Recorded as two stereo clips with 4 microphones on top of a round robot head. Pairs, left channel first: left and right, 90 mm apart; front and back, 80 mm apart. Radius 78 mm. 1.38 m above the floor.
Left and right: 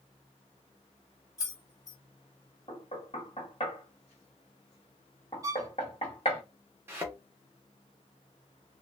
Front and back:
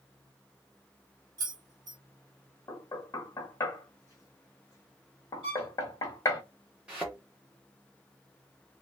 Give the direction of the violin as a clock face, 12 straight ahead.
5 o'clock.